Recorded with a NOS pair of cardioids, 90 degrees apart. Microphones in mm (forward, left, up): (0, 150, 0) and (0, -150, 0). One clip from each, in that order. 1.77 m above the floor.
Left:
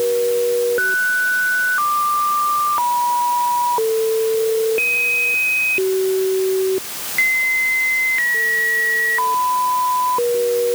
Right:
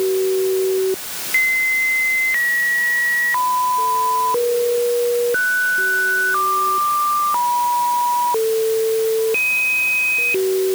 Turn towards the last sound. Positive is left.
No sound to turn to.